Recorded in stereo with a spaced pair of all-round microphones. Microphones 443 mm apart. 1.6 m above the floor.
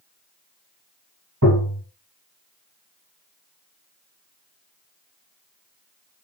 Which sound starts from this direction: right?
Tapping, at 1.4 s.